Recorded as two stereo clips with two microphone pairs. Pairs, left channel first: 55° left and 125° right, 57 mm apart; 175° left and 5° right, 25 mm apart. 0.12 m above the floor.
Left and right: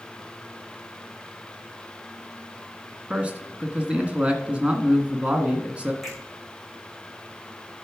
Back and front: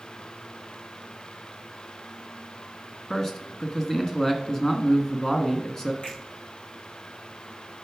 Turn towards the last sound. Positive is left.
turn(degrees=155)